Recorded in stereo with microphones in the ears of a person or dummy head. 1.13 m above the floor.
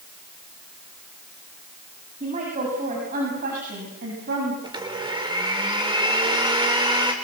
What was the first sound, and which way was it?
A woman speaking, 35° right (ahead or behind).